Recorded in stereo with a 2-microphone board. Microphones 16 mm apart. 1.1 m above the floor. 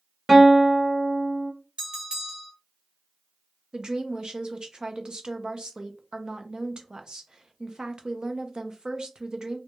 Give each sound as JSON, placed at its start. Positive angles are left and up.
{"t": 0.3, "sound": "a guitar", "side_deg": -20, "distance_m": 0.9}
{"t": 1.8, "sound": "a bell", "side_deg": -60, "distance_m": 1.6}
{"t": 3.7, "sound": "a woman speaking", "side_deg": -45, "distance_m": 0.5}